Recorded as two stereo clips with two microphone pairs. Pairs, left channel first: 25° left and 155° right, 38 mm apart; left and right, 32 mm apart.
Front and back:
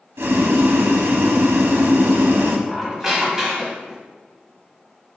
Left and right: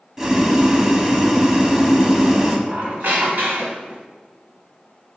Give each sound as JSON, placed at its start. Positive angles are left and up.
{"t": 0.2, "sound": "boiling", "azimuth_deg": -165, "distance_m": 0.5}
{"t": 2.7, "sound": "a squeak", "azimuth_deg": -80, "distance_m": 0.9}